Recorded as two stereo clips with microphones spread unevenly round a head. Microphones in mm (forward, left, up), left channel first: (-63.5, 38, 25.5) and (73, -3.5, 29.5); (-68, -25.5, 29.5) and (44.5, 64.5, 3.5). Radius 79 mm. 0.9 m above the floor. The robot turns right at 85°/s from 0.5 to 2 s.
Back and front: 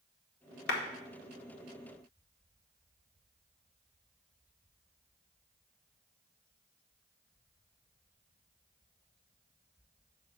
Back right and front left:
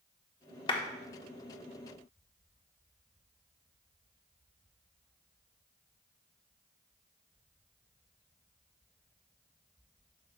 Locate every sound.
0.7 s a clap: 160° left, 1.5 m; by 0.8 s 170° left, 1.5 m